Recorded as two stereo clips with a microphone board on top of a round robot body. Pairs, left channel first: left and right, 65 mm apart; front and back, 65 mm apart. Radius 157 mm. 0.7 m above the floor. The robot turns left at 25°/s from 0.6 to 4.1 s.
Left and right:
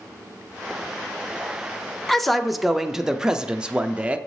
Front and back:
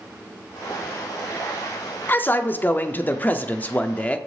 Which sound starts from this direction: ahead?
A man speaking, at 2.1 s.